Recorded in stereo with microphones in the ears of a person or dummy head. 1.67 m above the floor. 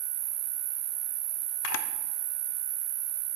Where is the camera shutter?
90° left, 0.6 m.